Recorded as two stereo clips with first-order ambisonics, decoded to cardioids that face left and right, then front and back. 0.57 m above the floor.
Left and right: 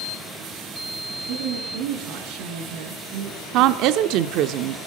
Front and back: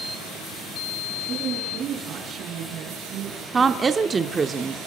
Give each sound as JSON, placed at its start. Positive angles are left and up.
{"t": 1.3, "sound": "a woman speaking", "azimuth_deg": -110, "distance_m": 5.5}
{"t": 3.5, "sound": "a woman speaking", "azimuth_deg": -105, "distance_m": 1.0}